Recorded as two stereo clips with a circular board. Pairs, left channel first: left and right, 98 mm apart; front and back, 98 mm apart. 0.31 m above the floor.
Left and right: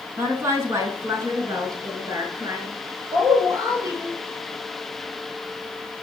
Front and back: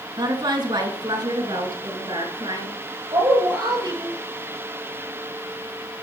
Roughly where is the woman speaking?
Behind right.